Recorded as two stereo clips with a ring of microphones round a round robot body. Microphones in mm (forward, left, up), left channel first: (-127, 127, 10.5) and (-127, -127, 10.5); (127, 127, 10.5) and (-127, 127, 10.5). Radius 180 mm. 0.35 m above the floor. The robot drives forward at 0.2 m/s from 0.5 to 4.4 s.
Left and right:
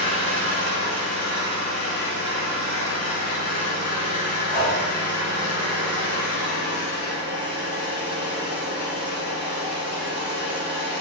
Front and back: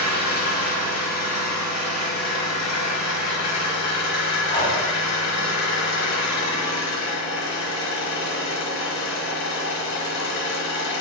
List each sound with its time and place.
0.0 s an engine running: 5° left, 1.7 m; by 11.0 s 10° left, 0.9 m
4.5 s breathing: 65° left, 1.9 m